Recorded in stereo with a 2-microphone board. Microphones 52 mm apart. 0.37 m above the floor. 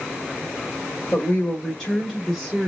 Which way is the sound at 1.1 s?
20° left (ahead or behind).